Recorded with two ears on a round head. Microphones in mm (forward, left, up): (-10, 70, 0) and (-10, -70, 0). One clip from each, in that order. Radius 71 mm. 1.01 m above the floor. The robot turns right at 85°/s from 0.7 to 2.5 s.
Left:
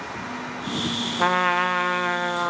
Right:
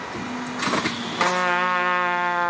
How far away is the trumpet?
About 1.1 m.